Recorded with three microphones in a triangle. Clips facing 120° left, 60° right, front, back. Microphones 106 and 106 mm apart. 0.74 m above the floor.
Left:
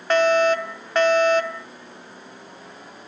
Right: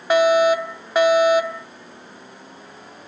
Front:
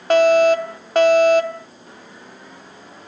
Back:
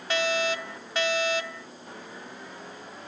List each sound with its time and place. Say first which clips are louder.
0.1 s a fire alarm: right 2 dB, front 15 dB; 20° left